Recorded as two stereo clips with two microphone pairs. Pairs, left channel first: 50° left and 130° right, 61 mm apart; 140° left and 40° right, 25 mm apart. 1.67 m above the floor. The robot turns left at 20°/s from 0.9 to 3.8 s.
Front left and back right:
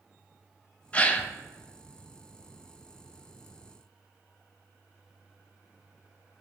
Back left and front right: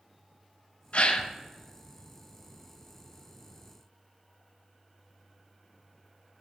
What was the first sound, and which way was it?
A gasp, 115° left.